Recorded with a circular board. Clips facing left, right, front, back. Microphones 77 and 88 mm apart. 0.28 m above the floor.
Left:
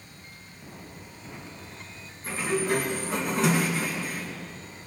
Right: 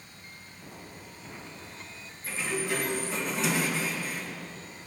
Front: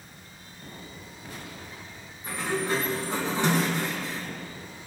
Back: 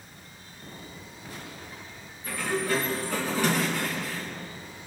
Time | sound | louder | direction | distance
2.2 | a sliding door | left 5 dB, even | 60° left | 2 m